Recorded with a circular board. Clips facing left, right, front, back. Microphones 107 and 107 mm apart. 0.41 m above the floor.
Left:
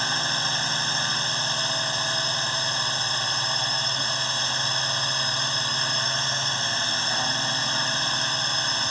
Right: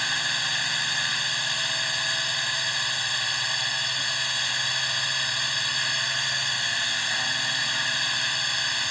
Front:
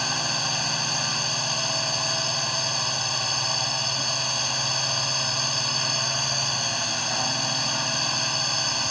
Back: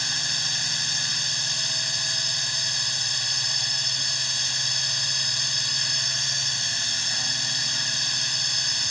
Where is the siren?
No siren in this recording.